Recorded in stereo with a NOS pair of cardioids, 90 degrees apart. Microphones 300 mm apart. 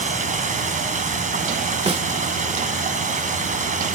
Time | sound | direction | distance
0.0 | running water | 25° right | 4.5 m
1.9 | a snare drum | 20° right | 1.1 m